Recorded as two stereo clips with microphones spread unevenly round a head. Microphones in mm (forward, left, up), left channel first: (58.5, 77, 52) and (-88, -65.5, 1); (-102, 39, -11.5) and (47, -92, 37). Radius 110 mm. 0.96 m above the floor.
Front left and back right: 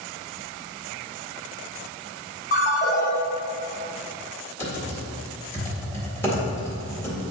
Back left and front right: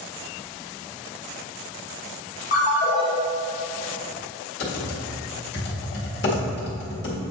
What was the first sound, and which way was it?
A ringtone, 90° left.